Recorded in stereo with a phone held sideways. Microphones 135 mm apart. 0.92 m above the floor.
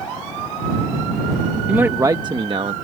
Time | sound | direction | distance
1.7 | a man speaking | 10° right (ahead or behind) | ?